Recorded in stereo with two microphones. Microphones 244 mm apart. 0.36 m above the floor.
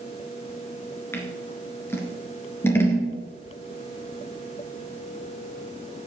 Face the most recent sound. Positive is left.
turn(degrees=10)  # may be behind; listen again after turning